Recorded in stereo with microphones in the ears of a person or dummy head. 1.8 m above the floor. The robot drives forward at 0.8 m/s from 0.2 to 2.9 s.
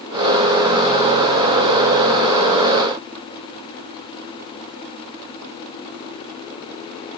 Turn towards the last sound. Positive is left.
No sound to turn to.